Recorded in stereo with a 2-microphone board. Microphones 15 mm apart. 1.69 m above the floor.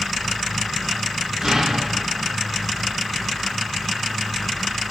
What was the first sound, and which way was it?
An explosion, 55° right (ahead or behind).